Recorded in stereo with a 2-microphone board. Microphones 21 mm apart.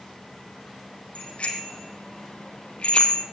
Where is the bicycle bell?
75° left (ahead or behind), 3 m; by 3.2 s 60° left (ahead or behind), 1.9 m.